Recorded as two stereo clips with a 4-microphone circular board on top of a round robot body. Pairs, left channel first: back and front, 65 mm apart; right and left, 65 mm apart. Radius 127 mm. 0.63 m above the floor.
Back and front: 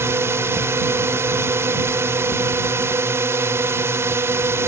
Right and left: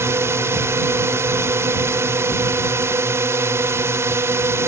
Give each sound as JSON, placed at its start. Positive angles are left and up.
{"t": 0.0, "sound": "a drone", "azimuth_deg": 45}